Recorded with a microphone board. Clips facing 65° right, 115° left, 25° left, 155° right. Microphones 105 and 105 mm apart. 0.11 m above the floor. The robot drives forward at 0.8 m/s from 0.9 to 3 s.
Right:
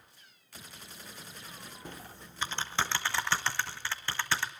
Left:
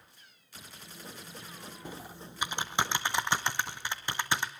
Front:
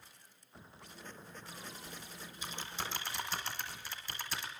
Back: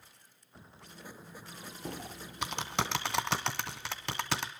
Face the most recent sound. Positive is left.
turn(degrees=-175)